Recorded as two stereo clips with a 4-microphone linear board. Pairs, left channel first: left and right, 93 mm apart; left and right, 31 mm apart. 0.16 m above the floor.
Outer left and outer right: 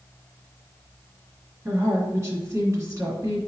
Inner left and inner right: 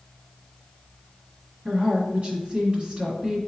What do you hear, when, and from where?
1.6 s a woman speaking: 35° right (ahead or behind), 1.9 m